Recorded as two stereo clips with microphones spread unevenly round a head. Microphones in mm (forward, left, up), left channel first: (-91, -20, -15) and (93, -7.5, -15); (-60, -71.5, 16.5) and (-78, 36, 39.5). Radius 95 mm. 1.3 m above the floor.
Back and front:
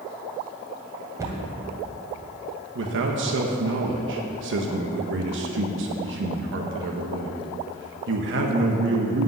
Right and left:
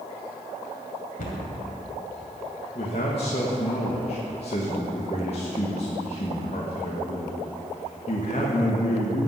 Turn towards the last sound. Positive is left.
turn(degrees=-25)